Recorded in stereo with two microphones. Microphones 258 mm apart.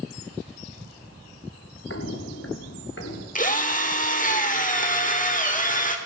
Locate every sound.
1.9 s footsteps: 55° left (ahead or behind), 1.0 m
3.4 s a drill: 30° left (ahead or behind), 1.2 m